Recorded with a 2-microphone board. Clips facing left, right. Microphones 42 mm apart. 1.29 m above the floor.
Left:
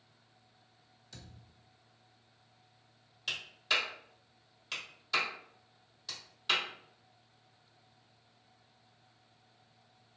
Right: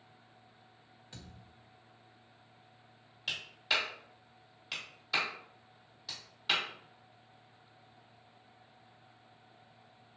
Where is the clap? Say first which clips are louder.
Even; 5° right (ahead or behind), 2.5 m.